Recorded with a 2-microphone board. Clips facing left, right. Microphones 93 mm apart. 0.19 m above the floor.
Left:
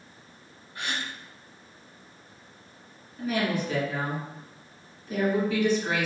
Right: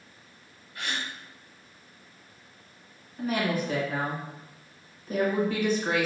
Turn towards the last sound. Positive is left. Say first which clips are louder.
# even
turn(degrees=-45)  # may be behind; listen again after turning